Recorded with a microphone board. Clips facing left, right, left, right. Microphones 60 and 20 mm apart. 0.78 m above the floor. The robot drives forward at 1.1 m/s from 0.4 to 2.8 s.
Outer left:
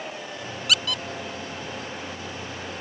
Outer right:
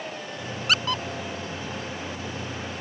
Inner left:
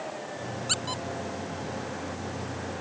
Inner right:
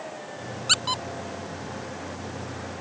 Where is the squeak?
35° right (ahead or behind).